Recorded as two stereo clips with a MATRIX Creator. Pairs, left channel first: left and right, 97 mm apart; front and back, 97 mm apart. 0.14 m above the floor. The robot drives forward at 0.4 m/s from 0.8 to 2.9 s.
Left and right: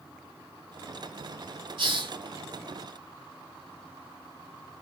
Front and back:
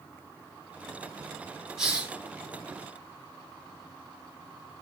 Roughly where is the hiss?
Right.